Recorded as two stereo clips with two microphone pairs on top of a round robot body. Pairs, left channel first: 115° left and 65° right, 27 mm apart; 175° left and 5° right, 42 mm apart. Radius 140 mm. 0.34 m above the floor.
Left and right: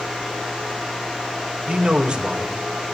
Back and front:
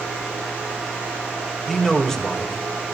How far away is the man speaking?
About 1.9 m.